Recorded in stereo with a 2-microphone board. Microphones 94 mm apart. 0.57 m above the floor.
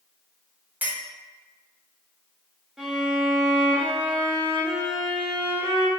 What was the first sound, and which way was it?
A clink, 15° right (ahead or behind).